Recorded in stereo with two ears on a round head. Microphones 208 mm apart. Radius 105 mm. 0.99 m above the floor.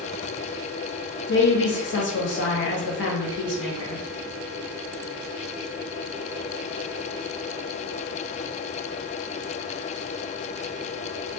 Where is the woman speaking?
55° left (ahead or behind), 1.1 m.